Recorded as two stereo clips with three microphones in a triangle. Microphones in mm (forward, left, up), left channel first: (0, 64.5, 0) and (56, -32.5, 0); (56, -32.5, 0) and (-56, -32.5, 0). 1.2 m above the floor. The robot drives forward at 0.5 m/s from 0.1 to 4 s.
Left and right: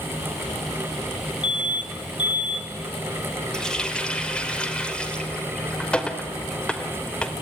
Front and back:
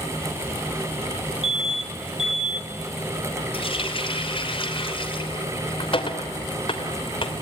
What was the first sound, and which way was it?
An alarm, 165° left.